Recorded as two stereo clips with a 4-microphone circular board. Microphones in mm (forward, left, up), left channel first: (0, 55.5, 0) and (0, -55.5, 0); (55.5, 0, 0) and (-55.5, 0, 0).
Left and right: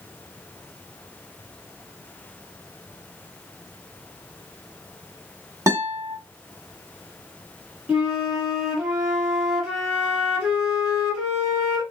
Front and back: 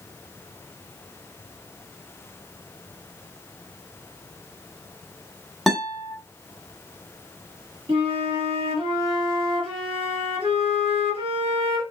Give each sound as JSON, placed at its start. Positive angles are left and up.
{"t": 5.7, "sound": "a guitar", "azimuth_deg": -90, "distance_m": 1.6}
{"t": 7.9, "sound": "a flute", "azimuth_deg": -175, "distance_m": 1.6}